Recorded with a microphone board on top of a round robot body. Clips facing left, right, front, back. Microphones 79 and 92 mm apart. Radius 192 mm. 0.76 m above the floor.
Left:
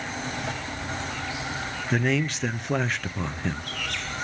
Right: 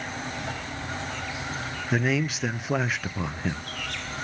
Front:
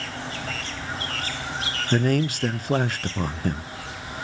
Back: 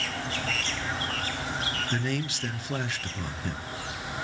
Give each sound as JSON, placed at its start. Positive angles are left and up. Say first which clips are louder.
{"t": 1.9, "sound": "a man speaking", "louder": "even, front 13 dB", "azimuth_deg": -5, "distance_m": 0.5}